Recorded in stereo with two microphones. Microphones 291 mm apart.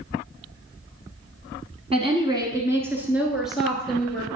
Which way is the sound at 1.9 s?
20° right (ahead or behind).